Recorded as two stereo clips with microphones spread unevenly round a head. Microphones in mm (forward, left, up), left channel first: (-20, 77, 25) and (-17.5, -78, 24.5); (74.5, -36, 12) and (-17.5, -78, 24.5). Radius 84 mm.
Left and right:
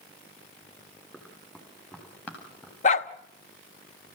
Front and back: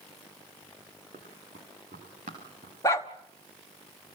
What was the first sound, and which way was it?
Running footsteps, 175° left.